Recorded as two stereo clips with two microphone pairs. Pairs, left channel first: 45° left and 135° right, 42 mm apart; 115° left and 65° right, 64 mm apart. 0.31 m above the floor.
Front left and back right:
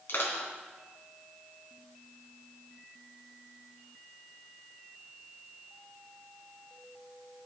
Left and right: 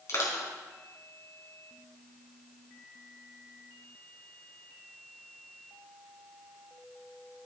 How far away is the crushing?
About 3 m.